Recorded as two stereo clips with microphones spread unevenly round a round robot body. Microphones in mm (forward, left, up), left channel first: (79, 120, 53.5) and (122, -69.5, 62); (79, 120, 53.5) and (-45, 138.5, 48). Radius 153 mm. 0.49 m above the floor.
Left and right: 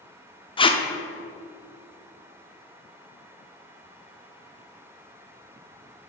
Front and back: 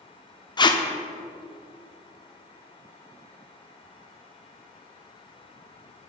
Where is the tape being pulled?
45° left, 0.7 m.